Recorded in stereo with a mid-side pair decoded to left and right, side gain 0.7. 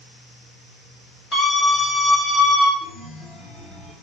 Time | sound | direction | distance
1.3 | a scream | 30° left | 1.7 m
2.8 | a chime | 30° left | 1.8 m